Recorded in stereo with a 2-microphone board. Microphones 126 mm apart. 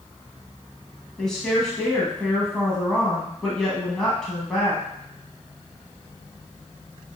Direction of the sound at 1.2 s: 5° left (ahead or behind).